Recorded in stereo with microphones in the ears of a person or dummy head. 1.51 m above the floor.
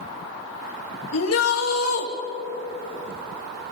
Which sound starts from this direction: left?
A shout, at 1.1 s.